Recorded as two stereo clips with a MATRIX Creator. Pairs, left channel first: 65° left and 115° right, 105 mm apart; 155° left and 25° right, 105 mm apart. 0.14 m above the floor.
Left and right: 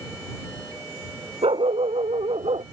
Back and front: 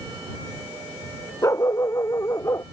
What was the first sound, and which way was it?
A dog barking, 140° right.